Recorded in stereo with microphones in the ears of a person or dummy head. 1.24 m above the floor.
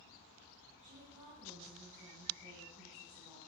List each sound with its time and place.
0.8 s a woman speaking: 35° right (ahead or behind), 6.5 m; by 3.4 s 20° right (ahead or behind), 7.5 m